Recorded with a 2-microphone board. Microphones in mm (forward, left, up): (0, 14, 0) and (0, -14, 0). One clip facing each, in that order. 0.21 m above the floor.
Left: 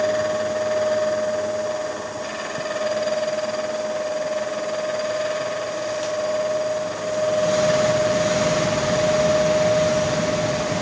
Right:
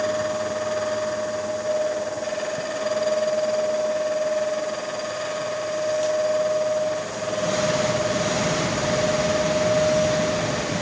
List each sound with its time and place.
Only background noise.